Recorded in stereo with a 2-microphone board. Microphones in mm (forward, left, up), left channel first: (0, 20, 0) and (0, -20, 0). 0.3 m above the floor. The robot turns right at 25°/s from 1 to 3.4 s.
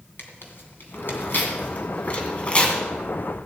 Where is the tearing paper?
60° left (ahead or behind), 2.5 m; by 2.8 s 25° left (ahead or behind), 2.5 m.